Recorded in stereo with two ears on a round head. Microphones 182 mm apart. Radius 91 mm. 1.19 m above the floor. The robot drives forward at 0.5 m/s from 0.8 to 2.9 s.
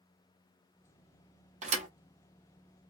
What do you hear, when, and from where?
1.6 s a thud: 35° right (ahead or behind), 0.9 m; by 1.9 s 40° right (ahead or behind), 0.8 m